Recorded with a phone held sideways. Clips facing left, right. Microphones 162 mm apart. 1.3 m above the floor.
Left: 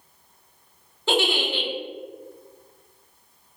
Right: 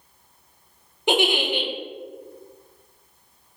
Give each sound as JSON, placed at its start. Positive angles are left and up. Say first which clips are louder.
{"t": 1.1, "sound": "a giggle", "louder": "right 2 dB", "side_deg": -15, "distance_m": 0.8}